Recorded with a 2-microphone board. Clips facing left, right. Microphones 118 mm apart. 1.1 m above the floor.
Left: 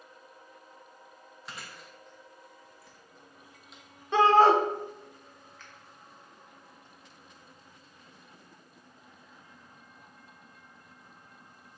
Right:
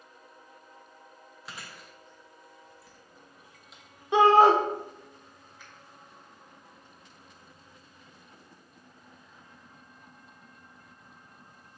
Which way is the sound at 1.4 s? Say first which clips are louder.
Even; centre (ahead or behind).